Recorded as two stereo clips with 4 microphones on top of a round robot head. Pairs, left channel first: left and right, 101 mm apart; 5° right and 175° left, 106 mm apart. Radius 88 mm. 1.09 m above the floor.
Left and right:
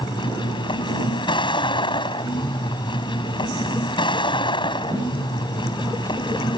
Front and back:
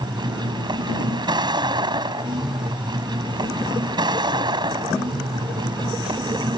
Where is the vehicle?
130° left.